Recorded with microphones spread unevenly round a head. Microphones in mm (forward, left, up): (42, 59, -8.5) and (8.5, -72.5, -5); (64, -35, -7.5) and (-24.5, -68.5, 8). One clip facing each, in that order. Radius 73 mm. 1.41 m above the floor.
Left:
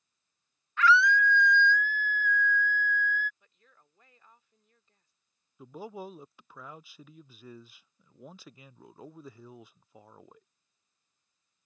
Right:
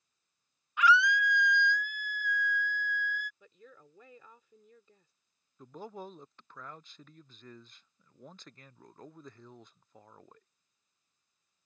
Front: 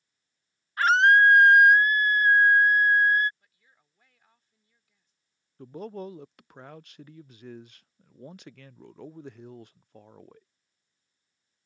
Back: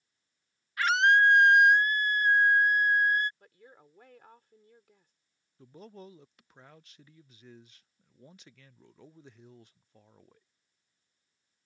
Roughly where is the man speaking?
Ahead.